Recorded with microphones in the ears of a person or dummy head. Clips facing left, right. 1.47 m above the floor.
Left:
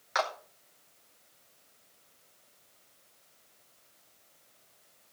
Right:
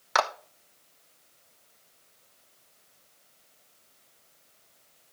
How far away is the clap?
About 1.4 m.